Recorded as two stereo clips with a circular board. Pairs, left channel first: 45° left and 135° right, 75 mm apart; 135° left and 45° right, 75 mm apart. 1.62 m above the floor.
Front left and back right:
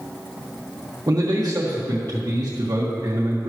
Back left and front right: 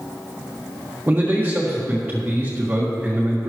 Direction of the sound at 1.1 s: 110° right.